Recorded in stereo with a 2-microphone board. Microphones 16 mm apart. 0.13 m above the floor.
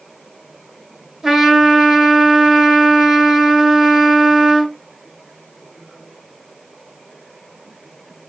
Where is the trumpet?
35° right (ahead or behind), 1.7 m.